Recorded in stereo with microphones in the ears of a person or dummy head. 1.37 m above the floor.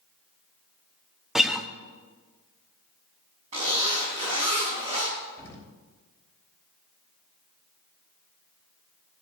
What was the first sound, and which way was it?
A guitar, centre (ahead or behind).